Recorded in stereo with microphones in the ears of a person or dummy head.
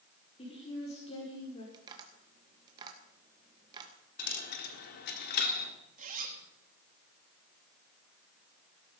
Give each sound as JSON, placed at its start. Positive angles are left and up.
{"t": 0.4, "sound": "a woman speaking", "side_deg": 30, "distance_m": 5.0}
{"t": 1.7, "sound": "tapping", "side_deg": -25, "distance_m": 2.0}
{"t": 4.2, "sound": "a dropped coin", "side_deg": 55, "distance_m": 1.7}
{"t": 6.0, "sound": "a zipper", "side_deg": -40, "distance_m": 2.5}